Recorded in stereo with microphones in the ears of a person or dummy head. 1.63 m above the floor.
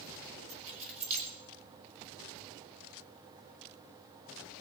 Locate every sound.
0.5 s keys jangling: 40° right (ahead or behind), 4 m